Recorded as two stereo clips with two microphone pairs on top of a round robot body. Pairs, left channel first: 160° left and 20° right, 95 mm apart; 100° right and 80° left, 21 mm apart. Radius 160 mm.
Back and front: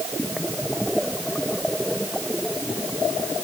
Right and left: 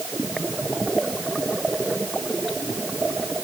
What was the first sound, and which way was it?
Only background noise.